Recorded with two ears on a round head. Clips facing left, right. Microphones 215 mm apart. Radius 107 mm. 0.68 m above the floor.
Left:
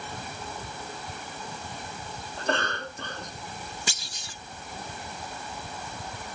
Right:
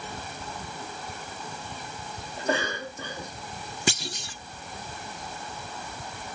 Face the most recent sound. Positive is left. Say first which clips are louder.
# right 9 dB
turn(degrees=-50)  # may be behind; listen again after turning